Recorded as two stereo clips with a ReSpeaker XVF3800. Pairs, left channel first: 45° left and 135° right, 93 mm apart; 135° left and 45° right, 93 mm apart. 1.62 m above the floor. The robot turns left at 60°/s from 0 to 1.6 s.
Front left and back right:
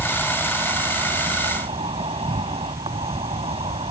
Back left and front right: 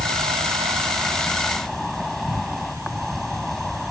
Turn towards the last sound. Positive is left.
turn(degrees=-140)